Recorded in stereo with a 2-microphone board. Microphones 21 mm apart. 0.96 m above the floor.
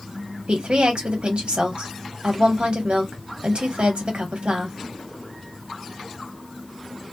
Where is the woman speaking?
80° right, 1.2 m.